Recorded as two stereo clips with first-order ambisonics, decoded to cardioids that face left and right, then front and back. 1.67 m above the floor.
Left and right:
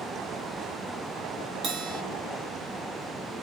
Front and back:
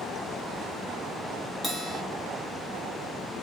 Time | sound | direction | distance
1.6 | a bell | 95° right | 1.1 m